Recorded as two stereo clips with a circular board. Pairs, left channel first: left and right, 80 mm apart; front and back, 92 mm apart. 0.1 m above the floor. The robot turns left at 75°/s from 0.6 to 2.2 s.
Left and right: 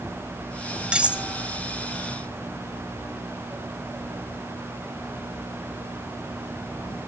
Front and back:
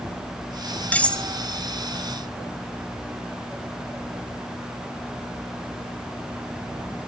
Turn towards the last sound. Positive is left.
turn(degrees=-135)